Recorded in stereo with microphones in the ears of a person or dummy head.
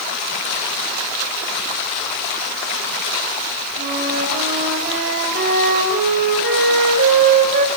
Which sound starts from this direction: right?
A flute, at 3.8 s.